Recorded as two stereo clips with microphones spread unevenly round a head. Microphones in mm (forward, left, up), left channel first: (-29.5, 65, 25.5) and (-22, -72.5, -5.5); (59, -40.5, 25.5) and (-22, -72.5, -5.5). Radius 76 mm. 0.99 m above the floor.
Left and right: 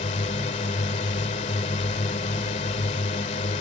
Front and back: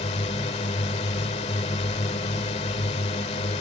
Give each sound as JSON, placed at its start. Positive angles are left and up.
{"t": 0.0, "sound": "a drone", "azimuth_deg": 45}